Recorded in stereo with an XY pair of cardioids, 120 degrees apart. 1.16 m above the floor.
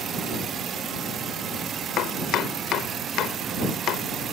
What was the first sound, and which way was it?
Chopping, 70° left.